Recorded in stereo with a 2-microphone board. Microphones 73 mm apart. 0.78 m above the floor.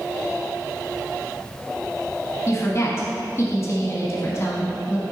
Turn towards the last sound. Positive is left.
turn(degrees=40)  # may be behind; listen again after turning